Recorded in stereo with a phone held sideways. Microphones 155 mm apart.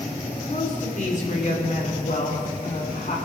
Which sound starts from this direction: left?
A woman speaking, at 0.5 s.